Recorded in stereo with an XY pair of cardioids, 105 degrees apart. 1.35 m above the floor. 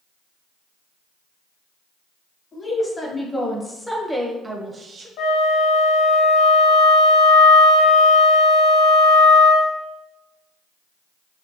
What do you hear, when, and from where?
2.5 s a woman speaking: 35° left, 1.4 m; by 5.1 s 45° right, 0.6 m
5.2 s a flute: 65° left, 0.7 m